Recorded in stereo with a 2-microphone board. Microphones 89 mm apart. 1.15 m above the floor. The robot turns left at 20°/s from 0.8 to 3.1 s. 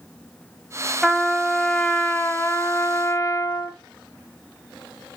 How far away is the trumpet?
About 1.3 m.